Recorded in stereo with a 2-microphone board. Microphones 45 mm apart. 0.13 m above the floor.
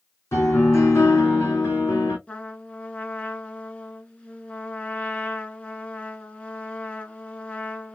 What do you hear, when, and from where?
0.3 s a piano: 80° left, 2 m
2.3 s a trumpet: 25° left (ahead or behind), 1.3 m